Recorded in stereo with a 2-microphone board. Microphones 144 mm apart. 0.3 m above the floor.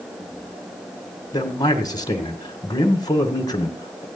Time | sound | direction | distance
1.3 | a man speaking | 30° left (ahead or behind) | 1.9 m